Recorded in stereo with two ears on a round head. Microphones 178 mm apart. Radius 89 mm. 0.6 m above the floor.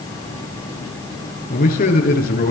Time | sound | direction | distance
1.5 | a man speaking | 45° left (ahead or behind) | 9.5 m